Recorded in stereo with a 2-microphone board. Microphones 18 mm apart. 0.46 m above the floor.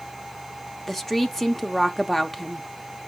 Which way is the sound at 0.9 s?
20° left (ahead or behind).